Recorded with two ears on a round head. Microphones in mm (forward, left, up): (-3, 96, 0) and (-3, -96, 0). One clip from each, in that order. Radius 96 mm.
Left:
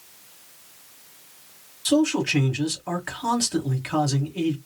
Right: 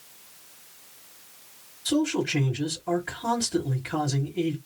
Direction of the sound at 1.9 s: 55° left (ahead or behind).